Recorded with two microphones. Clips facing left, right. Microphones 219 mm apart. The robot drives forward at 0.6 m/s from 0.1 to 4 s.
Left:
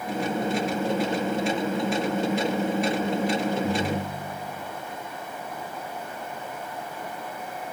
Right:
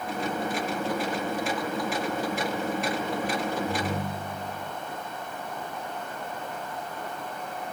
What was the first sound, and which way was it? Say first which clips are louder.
A ringtone: left 3 dB; 65° left (ahead or behind).